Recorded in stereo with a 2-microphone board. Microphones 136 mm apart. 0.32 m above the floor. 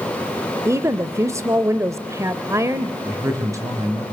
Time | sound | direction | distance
0.7 | a woman speaking | 20° right (ahead or behind) | 0.9 m
3.0 | a man speaking | 25° right (ahead or behind) | 4.5 m